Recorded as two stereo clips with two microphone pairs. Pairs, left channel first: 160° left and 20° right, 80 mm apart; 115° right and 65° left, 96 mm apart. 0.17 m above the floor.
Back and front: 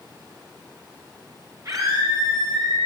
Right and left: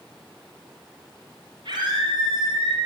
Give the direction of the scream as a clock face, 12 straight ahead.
11 o'clock.